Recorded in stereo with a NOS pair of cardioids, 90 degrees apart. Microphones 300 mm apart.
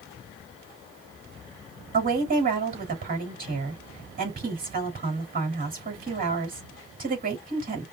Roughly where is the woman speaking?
Ahead right.